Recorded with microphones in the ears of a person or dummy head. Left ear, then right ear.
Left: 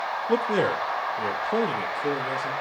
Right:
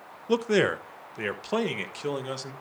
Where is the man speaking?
25° right (ahead or behind), 0.7 m; by 2.5 s 55° right (ahead or behind), 1.7 m.